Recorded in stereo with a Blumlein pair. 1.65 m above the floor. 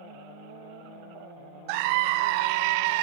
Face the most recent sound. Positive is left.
turn(degrees=-45)